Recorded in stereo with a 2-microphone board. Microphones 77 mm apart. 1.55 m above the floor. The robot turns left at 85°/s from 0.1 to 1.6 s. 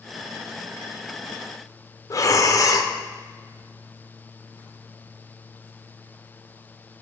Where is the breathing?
45° left (ahead or behind), 0.5 m.